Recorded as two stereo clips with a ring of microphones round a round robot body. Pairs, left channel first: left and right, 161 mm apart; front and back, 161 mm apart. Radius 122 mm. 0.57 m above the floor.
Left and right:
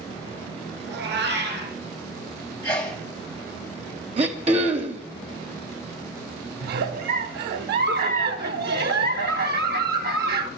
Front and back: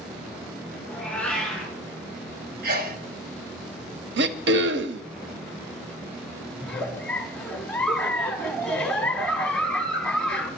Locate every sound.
0.9 s a cat meowing: 85° right, 4.5 m
2.6 s a sneeze: 160° left, 2.5 m
4.2 s throat clearing: 155° right, 0.6 m
6.6 s a giggle: 85° right, 0.7 m